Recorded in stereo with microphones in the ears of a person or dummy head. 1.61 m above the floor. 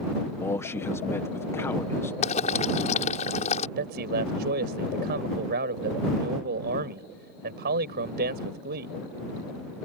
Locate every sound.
0.4 s a man speaking: 20° left (ahead or behind)
2.2 s boiling: 40° left (ahead or behind)
3.8 s a man speaking: 60° right (ahead or behind)